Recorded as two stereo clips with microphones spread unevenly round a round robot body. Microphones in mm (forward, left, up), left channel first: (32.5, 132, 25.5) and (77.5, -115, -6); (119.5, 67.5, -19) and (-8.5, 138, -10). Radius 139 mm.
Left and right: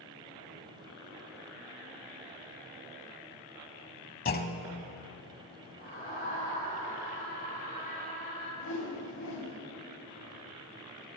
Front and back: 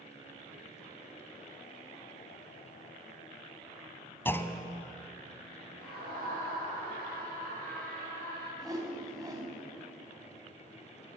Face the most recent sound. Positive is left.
turn(degrees=90)